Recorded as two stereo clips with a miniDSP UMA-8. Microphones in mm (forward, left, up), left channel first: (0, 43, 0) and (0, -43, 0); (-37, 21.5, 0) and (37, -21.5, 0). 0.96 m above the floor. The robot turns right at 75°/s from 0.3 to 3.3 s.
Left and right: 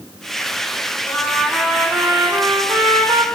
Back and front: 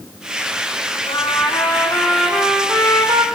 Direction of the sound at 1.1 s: 150° left.